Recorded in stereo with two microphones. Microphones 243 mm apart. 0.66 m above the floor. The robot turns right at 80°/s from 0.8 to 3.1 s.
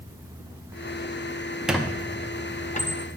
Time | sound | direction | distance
1.7 | a squeak | 5° right (ahead or behind) | 0.6 m